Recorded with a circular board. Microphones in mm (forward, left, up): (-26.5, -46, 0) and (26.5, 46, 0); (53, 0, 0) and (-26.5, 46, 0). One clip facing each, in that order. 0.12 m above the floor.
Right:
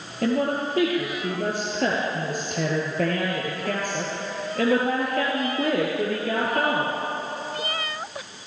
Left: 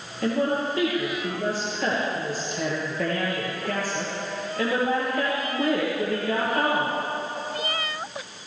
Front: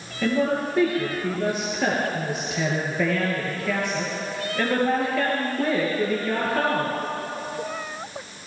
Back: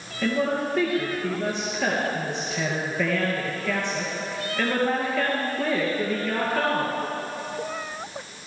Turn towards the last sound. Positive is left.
turn(degrees=-115)